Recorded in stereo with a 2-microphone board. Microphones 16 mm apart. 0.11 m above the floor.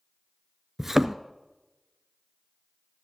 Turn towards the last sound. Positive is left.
turn(degrees=-15)  # may be behind; listen again after turning